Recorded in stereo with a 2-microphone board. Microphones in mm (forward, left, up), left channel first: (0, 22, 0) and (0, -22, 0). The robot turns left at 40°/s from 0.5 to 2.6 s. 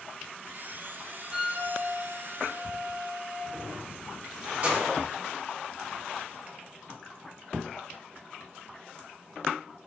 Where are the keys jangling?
35° right (ahead or behind), 1.5 m.